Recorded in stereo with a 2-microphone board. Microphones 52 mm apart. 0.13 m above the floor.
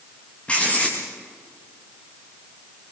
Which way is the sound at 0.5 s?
25° left (ahead or behind).